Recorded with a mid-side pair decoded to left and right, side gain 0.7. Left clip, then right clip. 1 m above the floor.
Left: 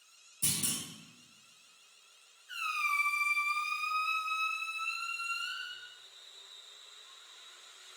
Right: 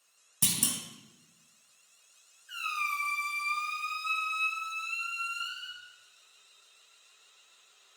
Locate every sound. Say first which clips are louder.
0.4 s a clunk: right 4 dB; 65° right, 0.7 m
2.5 s a squeak: even; 20° right, 1.8 m